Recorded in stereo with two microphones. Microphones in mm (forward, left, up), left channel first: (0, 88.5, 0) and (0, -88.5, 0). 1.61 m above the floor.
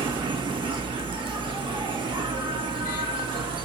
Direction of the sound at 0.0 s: 30° right (ahead or behind).